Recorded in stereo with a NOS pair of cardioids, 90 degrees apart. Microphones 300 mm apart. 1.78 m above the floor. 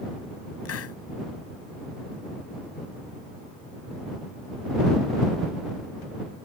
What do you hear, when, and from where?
0.7 s a hiss: 55° left